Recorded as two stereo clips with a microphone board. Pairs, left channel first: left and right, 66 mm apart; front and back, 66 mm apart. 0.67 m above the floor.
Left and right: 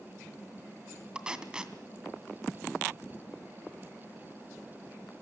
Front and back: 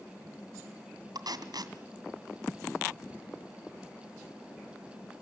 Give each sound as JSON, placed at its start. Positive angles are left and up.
{"t": 1.1, "sound": "tape being pulled", "azimuth_deg": -165, "distance_m": 2.0}